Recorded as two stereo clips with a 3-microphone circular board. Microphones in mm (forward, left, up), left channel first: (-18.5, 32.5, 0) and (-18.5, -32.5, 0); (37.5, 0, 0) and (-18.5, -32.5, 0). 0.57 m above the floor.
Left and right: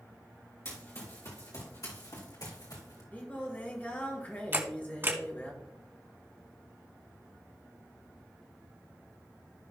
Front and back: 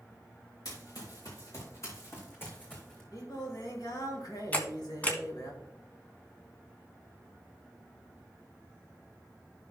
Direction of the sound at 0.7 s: 45° left.